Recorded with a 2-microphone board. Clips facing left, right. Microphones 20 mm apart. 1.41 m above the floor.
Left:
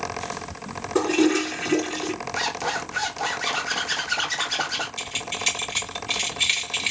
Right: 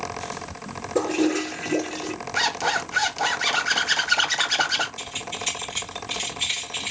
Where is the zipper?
20° right (ahead or behind), 0.9 m.